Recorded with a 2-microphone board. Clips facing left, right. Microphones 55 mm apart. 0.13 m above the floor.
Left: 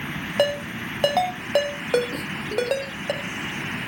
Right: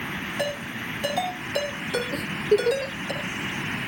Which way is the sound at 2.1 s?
60° right (ahead or behind).